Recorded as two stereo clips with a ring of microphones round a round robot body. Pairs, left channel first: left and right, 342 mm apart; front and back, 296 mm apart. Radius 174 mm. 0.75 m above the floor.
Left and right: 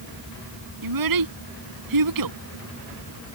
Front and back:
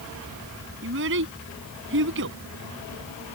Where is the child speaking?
120° right.